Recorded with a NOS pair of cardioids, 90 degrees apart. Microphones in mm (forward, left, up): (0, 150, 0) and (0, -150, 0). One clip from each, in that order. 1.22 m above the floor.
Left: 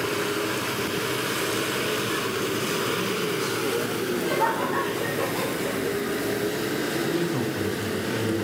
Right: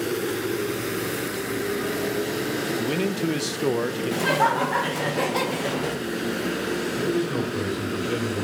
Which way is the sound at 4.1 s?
70° right.